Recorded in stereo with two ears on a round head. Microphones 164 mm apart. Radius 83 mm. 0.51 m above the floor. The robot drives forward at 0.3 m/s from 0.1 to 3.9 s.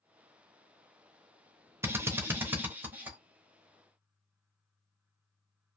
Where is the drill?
15° right (ahead or behind), 0.7 m; by 3.2 s 10° right (ahead or behind), 1.1 m.